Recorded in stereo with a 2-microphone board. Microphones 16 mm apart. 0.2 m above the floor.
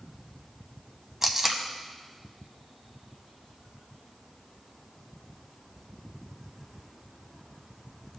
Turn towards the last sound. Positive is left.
turn(degrees=-25)  # may be behind; listen again after turning